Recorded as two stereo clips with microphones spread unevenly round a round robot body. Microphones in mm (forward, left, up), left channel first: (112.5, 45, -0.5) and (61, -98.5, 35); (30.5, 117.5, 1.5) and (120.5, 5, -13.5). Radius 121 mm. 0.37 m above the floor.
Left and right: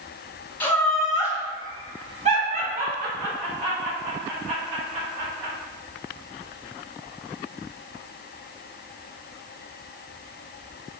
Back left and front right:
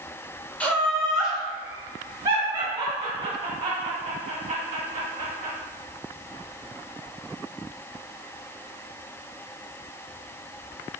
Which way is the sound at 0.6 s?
45° left.